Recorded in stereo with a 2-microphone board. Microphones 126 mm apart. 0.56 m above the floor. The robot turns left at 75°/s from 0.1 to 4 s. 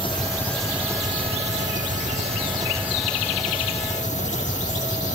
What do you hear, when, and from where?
0.0 s an engine running: 40° left; by 5.2 s 105° left